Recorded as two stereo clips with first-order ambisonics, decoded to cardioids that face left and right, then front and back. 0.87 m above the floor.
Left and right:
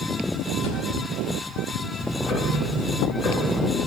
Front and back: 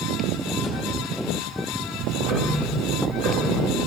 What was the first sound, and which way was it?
A drawer, 70° left.